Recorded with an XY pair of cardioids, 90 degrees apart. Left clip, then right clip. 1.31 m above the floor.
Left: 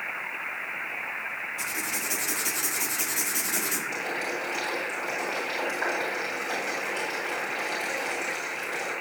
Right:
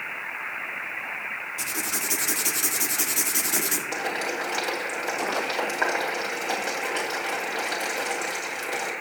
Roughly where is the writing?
Ahead right.